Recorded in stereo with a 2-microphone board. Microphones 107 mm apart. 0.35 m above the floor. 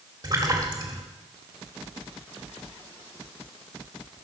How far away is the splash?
About 1.6 m.